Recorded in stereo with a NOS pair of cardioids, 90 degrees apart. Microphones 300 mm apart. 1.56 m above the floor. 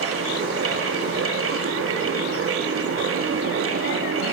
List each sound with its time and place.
0.0 s a fan: 45° right, 3 m